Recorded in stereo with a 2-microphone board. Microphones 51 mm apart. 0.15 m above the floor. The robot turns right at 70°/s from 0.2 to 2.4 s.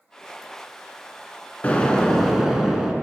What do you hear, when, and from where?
1.6 s an explosion: 135° left, 0.8 m; by 2.9 s 175° right, 0.8 m